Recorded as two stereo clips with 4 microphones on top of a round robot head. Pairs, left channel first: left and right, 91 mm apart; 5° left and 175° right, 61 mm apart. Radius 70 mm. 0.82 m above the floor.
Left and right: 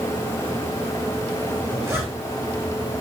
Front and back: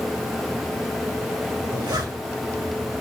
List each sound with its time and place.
1.6 s a zipper: 160° right, 2.5 m